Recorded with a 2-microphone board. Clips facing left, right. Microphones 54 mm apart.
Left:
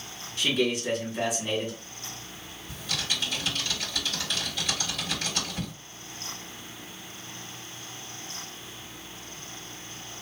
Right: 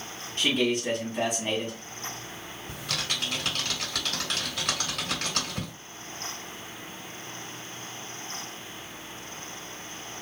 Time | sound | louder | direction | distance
0.4 | a man speaking | right 1 dB | 50° right (ahead or behind) | 1.8 m
2.7 | typing on a keyboard | even | 65° right (ahead or behind) | 2 m